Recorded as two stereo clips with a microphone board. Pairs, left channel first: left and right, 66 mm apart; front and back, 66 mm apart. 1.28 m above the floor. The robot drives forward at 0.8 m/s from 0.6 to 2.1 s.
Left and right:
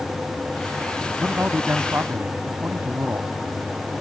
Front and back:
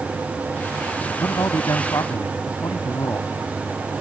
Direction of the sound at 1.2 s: 30° right.